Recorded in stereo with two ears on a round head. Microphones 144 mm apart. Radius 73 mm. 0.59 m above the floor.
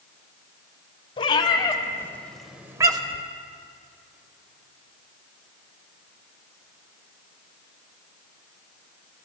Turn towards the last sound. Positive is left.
turn(degrees=-40)  # may be behind; listen again after turning